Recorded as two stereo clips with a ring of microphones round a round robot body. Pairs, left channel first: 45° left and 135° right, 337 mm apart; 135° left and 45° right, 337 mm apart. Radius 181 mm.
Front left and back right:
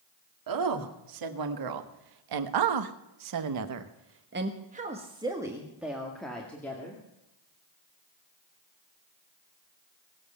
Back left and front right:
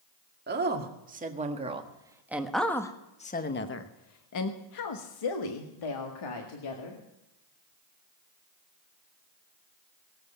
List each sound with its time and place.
0.5 s a woman speaking: 105° right, 2 m; by 7.0 s 130° left, 2.5 m